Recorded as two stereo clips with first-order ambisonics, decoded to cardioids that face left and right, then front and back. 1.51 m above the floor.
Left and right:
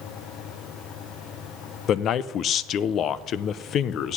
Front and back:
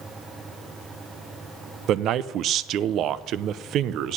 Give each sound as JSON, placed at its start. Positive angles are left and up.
{"t": 1.9, "sound": "a man speaking", "azimuth_deg": 140, "distance_m": 0.5}